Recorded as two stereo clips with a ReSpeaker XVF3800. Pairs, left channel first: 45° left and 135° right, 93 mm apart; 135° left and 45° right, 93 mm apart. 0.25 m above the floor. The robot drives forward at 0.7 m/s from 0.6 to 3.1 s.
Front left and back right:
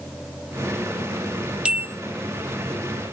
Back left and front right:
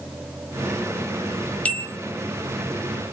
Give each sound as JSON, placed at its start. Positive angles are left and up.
{"t": 1.6, "sound": "a bell", "azimuth_deg": 170, "distance_m": 1.3}